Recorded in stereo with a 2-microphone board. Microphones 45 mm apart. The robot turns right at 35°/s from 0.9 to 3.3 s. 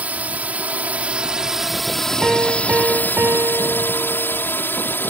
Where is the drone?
30° right; by 5.1 s 50° left.